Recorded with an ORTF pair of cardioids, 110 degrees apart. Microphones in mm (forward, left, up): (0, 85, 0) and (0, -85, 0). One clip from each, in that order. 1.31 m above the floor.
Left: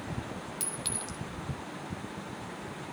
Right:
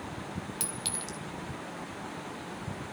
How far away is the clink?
About 2.5 m.